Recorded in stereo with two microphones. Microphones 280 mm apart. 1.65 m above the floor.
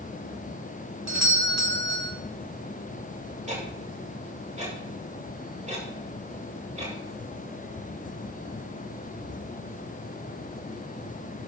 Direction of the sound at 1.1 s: 70° right (ahead or behind).